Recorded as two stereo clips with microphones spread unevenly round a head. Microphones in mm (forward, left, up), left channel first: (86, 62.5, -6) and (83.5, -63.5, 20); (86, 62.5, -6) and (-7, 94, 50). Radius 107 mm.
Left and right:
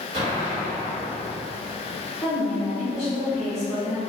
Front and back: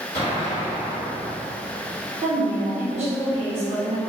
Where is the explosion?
95° right, 1.0 m.